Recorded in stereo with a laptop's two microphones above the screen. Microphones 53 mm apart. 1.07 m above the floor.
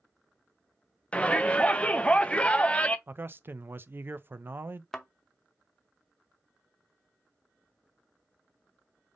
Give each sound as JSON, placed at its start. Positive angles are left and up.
{"t": 1.1, "sound": "a shout", "side_deg": 20, "distance_m": 0.7}
{"t": 3.1, "sound": "a man speaking", "side_deg": -45, "distance_m": 0.6}
{"t": 4.9, "sound": "a thud", "side_deg": 10, "distance_m": 0.7}